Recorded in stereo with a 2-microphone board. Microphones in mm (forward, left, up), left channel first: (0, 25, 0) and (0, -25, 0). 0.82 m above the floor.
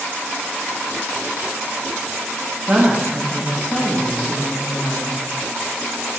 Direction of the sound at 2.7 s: 30° right (ahead or behind).